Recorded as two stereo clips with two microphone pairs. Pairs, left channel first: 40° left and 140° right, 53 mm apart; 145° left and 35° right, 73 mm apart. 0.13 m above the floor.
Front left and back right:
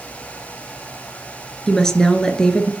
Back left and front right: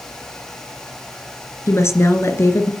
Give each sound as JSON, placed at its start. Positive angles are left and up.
{"t": 1.7, "sound": "a woman speaking", "azimuth_deg": 120, "distance_m": 2.0}